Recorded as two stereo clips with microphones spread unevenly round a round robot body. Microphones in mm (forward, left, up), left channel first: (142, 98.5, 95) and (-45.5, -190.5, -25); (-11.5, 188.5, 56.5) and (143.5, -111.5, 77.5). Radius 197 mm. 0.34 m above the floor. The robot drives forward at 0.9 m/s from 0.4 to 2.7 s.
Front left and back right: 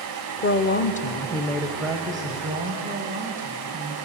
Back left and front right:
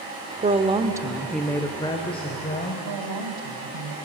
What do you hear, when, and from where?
0.4 s a woman speaking: 5° right, 1.1 m; by 2.7 s straight behind, 1.8 m
2.8 s a woman speaking: 65° right, 2 m